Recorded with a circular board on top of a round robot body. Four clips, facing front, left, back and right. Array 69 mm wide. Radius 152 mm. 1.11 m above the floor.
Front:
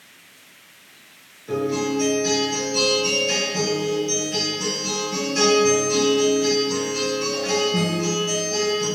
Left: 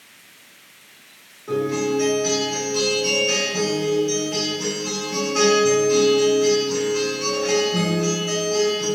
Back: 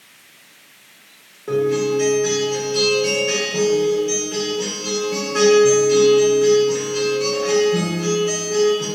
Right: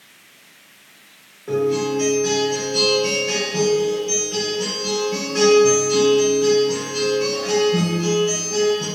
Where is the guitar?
165° right, 1.1 m.